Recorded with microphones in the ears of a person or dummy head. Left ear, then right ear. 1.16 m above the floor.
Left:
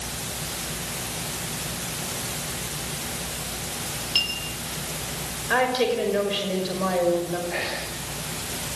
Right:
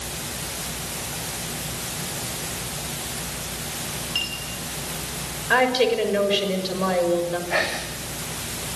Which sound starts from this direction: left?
A clink, at 4.2 s.